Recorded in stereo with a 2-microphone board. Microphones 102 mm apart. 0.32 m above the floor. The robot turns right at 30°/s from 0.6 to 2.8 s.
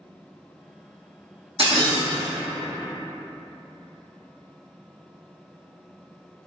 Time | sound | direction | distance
1.6 | breaking glass | 75° right (ahead or behind) | 1.1 m